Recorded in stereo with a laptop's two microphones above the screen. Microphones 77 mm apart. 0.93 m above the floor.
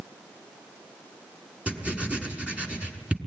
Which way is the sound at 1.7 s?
15° right (ahead or behind).